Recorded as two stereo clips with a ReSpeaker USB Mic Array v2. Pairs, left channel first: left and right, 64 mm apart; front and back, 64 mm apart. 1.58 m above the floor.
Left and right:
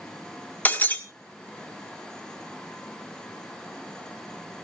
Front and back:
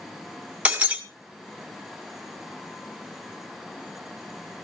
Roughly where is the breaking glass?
Behind left.